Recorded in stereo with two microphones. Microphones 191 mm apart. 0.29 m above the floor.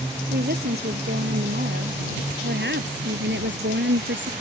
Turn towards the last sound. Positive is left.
turn(degrees=-75)  # may be behind; listen again after turning